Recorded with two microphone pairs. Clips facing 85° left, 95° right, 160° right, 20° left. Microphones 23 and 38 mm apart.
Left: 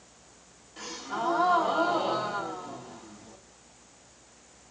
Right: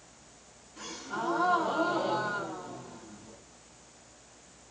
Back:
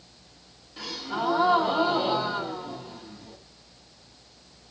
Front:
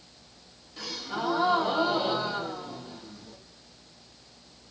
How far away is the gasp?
About 1.6 m.